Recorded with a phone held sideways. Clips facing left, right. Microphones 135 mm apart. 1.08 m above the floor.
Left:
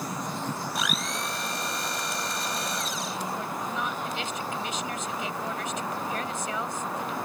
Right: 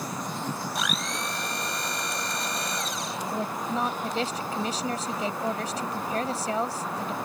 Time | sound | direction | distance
0.8 | a blender | centre (ahead or behind) | ?
3.3 | a woman speaking | 35° right (ahead or behind) | ?